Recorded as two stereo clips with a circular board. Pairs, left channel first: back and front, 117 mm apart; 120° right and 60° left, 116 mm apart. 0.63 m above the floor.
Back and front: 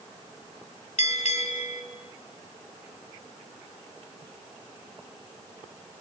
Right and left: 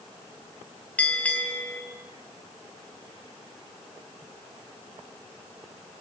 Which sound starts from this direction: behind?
A bell, at 1.0 s.